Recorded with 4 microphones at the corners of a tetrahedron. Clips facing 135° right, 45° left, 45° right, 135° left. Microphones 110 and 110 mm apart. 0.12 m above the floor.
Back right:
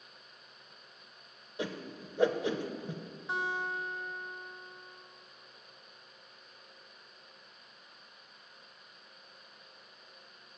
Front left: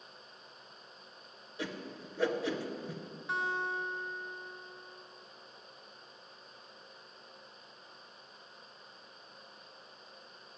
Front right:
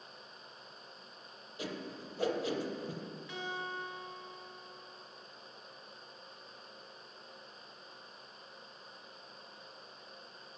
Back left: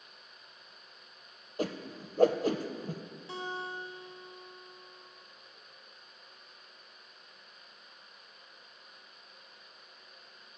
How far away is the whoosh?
About 0.6 m.